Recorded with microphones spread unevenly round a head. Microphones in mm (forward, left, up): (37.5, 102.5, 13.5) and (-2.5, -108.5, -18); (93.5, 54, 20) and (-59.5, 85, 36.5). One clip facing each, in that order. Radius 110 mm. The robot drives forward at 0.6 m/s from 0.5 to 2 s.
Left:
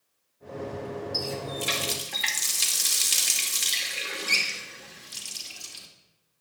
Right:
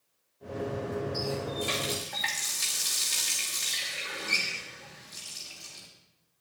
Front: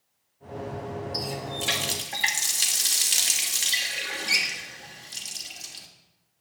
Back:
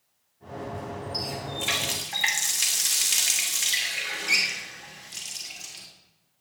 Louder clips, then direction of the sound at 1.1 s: Right 1 dB, front 1 dB; 30° left.